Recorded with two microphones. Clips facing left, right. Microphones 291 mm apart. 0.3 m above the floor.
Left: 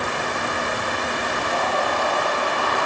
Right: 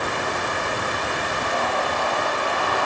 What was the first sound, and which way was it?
Only background noise.